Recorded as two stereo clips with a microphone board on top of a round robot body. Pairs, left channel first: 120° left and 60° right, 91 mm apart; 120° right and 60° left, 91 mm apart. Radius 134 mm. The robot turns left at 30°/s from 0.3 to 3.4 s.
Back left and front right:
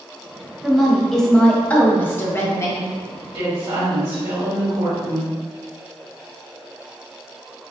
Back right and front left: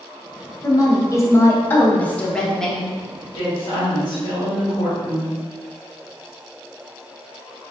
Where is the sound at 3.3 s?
80° right, 1.8 m; by 5.3 s 85° right, 1.8 m.